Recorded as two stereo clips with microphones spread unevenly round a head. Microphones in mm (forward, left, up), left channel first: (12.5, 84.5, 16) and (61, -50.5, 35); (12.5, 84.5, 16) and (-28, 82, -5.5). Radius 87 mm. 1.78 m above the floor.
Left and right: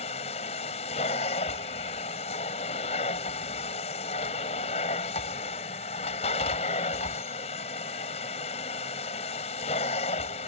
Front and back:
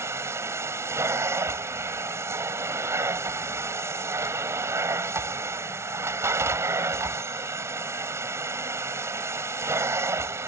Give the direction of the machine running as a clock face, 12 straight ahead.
6 o'clock.